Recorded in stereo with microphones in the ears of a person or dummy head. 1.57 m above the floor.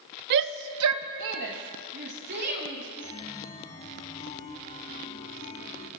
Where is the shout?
55° right (ahead or behind), 0.6 m; by 2.9 s 50° right (ahead or behind), 2.5 m.